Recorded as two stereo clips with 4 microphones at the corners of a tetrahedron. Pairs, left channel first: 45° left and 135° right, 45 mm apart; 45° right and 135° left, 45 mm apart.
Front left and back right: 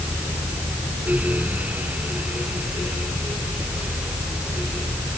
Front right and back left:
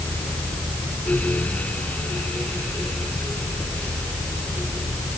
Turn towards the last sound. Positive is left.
No sound to turn to.